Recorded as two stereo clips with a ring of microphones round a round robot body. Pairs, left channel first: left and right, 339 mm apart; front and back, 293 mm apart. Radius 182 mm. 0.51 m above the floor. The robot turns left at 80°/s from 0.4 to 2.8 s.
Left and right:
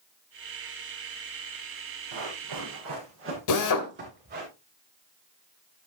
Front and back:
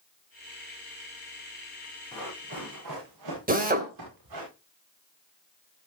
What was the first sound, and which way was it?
Running footsteps, 80° right.